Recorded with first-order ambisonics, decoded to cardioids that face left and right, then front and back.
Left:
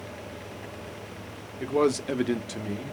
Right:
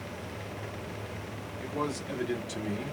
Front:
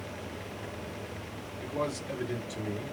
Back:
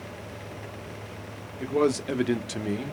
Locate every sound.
1.6 s a man speaking: 120° left, 0.8 m; by 2.9 s 170° right, 0.6 m